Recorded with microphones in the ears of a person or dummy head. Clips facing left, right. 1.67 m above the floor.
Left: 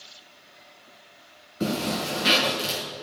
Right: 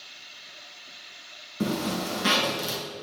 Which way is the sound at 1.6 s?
65° right (ahead or behind).